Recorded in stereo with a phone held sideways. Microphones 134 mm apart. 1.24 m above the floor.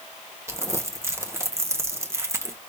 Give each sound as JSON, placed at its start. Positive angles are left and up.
{"t": 0.5, "sound": "crumpling", "side_deg": -20, "distance_m": 0.9}